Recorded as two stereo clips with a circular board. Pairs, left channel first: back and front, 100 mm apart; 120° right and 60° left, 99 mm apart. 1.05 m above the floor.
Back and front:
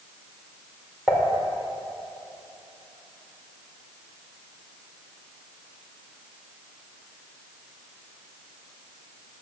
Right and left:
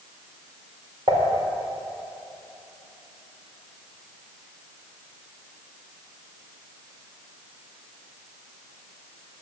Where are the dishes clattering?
85° left, 2.5 m.